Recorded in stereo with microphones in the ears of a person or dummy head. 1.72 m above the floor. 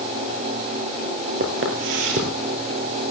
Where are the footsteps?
50° right (ahead or behind), 2.5 m.